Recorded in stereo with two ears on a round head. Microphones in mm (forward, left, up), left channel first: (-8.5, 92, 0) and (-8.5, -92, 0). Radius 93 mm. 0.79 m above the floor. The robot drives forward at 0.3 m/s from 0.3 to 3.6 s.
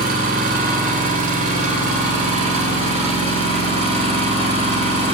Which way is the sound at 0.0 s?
45° right (ahead or behind).